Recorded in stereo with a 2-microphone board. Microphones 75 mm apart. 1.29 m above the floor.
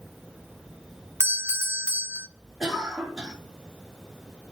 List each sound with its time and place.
1.2 s a doorbell: 30° right (ahead or behind), 0.7 m
2.6 s a cough: 5° right (ahead or behind), 2.5 m